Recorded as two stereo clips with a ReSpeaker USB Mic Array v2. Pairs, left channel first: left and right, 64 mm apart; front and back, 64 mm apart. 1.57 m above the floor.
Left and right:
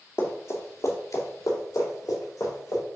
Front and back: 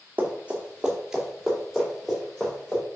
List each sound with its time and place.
0.2 s running footsteps: 125° left, 2.5 m; by 2.8 s 75° left, 5 m